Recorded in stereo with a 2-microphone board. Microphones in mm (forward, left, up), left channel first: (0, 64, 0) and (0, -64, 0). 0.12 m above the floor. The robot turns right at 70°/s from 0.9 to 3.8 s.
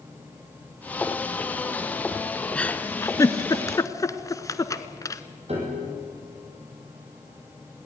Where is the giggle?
10° left (ahead or behind), 0.8 m; by 5.2 s 25° left (ahead or behind), 0.8 m.